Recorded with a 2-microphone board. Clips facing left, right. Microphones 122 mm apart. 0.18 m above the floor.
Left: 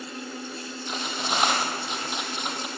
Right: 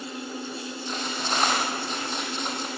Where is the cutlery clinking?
10° left (ahead or behind), 3.5 m.